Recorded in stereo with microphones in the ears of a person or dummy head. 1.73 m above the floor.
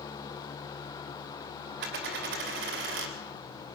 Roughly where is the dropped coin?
Right.